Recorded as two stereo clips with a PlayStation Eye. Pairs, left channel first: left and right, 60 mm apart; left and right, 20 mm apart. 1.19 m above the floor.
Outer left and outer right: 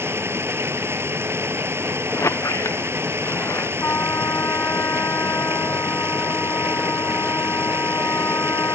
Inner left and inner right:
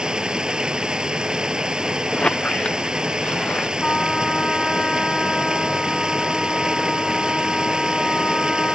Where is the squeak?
55° left (ahead or behind).